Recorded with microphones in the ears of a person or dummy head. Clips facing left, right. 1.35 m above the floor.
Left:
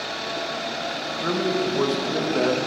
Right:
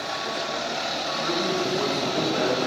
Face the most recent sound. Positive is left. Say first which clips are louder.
# left 3 dB
turn(degrees=50)  # may be behind; listen again after turning